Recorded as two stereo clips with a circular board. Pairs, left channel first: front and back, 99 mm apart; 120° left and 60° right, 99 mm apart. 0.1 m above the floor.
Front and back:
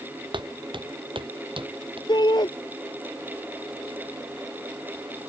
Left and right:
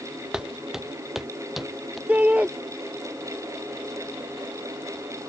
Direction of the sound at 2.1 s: 10° left.